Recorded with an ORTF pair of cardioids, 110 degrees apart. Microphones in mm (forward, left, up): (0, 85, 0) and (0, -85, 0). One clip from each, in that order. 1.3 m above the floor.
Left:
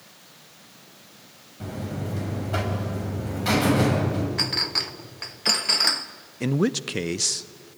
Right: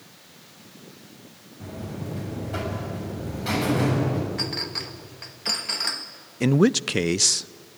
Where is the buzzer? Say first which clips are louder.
Left 3 dB; 30° left, 7.5 m.